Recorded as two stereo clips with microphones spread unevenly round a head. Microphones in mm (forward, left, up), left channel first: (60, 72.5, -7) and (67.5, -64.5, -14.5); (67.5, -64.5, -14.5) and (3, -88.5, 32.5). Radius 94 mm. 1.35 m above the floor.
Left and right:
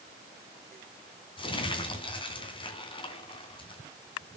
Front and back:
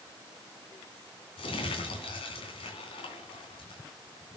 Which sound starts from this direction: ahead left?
Crumpling, at 1.4 s.